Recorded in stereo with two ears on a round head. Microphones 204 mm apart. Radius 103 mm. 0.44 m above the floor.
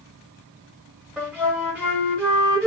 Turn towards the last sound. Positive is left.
turn(degrees=-5)  # may be behind; listen again after turning